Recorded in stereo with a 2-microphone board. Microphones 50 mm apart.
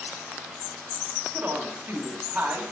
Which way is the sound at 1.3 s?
25° right (ahead or behind).